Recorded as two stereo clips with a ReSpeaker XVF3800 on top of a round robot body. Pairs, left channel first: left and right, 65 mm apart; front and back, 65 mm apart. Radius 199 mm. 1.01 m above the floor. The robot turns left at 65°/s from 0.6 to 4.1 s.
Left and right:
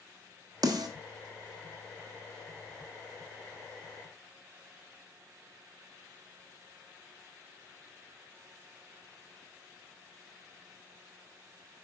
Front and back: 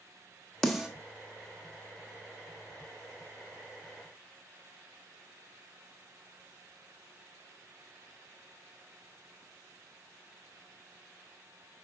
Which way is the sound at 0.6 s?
80° right.